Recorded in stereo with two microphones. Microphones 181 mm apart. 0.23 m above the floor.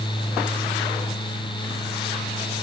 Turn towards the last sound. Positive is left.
No sound to turn to.